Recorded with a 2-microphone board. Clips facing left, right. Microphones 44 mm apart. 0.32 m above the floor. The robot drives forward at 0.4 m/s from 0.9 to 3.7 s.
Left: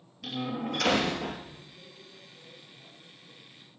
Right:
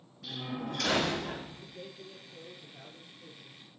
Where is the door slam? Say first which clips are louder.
Left 5 dB; 80° left, 5 m.